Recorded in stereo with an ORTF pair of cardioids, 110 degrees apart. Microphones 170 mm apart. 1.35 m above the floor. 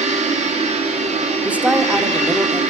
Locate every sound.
0.0 s a machine running: 40° right, 2 m
1.4 s a woman speaking: 10° right, 1.4 m